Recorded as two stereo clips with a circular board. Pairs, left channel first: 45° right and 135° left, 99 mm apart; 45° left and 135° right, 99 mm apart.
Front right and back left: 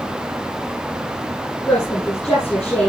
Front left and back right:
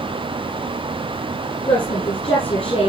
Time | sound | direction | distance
1.7 | a woman speaking | 30° left | 7 m